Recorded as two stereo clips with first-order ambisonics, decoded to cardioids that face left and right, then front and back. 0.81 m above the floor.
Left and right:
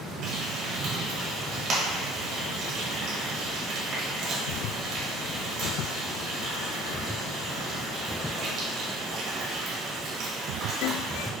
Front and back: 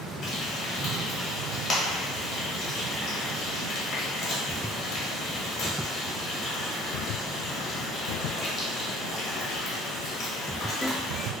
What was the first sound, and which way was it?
Frying, 60° right.